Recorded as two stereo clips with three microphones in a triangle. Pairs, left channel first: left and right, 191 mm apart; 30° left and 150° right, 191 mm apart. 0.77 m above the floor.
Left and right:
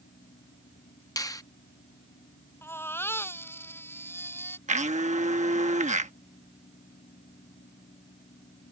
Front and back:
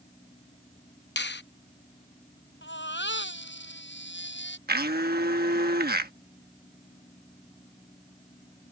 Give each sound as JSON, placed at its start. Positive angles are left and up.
{"t": 1.2, "sound": "a finger snap", "azimuth_deg": 20}
{"t": 2.6, "sound": "a baby crying", "azimuth_deg": 10}
{"t": 4.7, "sound": "a blender", "azimuth_deg": -135}